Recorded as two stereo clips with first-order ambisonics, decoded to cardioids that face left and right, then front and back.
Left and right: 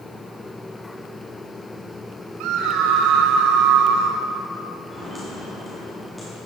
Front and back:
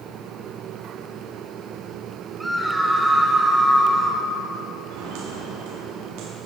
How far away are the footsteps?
About 5 m.